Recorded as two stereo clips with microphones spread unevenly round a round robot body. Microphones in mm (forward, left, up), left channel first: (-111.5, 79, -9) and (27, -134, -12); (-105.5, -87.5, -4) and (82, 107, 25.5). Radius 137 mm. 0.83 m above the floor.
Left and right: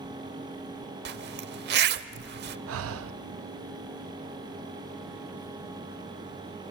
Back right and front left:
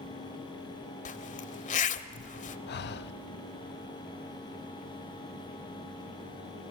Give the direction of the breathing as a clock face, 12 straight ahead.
3 o'clock.